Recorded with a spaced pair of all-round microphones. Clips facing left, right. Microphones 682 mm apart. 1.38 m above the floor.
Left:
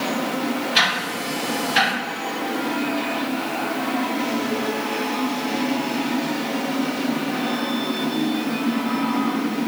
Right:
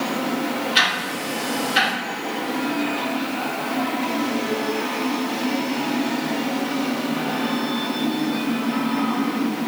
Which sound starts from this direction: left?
Ticking, at 0.8 s.